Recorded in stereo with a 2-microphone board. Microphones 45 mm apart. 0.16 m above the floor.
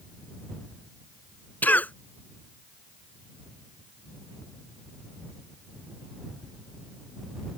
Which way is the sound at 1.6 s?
40° left (ahead or behind).